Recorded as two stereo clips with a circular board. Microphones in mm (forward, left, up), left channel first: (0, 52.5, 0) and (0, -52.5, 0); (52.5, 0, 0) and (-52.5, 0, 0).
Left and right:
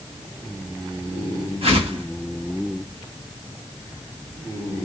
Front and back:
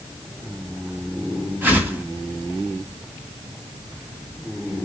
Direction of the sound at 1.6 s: 110° right.